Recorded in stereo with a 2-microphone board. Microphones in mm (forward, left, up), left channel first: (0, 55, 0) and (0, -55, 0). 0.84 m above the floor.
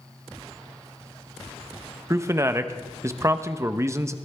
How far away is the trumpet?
No trumpet in this recording.